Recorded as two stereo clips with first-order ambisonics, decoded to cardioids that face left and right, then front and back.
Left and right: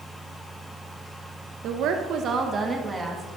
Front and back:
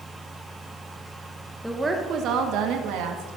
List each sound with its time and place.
1.6 s a woman speaking: 85° right, 0.8 m; by 3.4 s 175° right, 1.8 m